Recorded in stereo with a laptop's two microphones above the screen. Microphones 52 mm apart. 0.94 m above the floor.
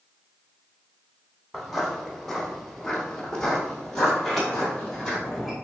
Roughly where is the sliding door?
Centre.